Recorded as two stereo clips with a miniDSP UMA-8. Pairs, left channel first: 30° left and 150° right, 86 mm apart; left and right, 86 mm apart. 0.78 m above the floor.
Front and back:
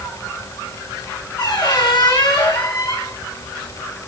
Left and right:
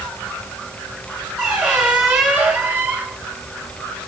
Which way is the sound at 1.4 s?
10° right.